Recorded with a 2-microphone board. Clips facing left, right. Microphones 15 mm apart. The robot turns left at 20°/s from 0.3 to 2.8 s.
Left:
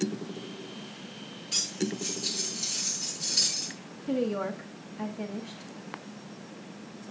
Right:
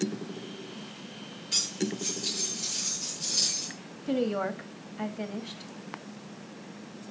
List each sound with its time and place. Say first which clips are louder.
1.5 s cutlery clinking: right 1 dB; 5° right (ahead or behind), 7.5 m; by 3.8 s 25° left (ahead or behind), 7.5 m
4.1 s a woman speaking: right 1 dB; 25° right (ahead or behind), 1.3 m